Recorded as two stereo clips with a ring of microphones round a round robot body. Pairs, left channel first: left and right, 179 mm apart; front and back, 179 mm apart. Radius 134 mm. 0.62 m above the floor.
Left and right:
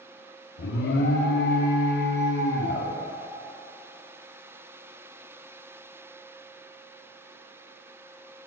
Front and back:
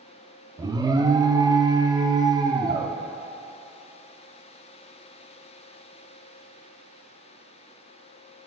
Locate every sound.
0.6 s an alarm: 110° left, 0.6 m